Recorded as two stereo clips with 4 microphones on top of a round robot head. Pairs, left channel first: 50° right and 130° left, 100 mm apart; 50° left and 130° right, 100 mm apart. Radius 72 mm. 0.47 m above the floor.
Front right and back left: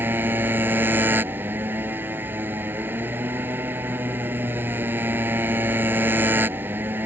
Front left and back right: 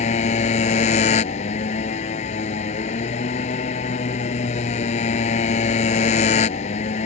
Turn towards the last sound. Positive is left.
turn(degrees=55)